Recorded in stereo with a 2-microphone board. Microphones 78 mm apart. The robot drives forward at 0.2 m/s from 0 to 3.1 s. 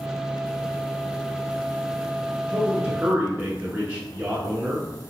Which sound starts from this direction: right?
A man speaking, at 2.5 s.